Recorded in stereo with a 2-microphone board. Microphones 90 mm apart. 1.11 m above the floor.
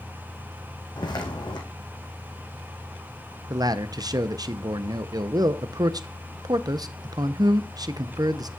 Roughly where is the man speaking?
Right.